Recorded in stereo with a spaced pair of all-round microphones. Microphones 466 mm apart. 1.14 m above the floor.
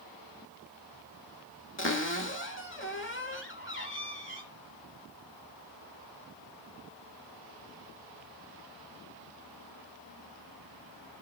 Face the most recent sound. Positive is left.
turn(degrees=25)  # may be behind; listen again after turning